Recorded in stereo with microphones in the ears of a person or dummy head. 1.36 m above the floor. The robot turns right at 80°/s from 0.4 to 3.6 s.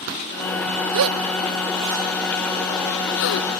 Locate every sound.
0.9 s a gasp: 65° right (ahead or behind); by 3.5 s 65° left (ahead or behind)